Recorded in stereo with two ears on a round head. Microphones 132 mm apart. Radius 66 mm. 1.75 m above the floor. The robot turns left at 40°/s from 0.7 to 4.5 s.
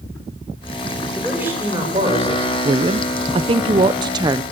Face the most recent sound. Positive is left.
turn(degrees=-140)